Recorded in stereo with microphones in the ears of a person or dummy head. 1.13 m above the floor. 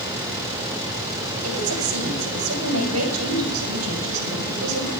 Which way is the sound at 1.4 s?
85° right.